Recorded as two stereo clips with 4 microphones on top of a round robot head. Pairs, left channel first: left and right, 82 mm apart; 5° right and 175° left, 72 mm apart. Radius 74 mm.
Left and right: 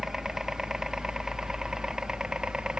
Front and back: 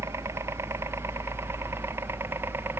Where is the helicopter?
170° right; by 2.8 s 160° right.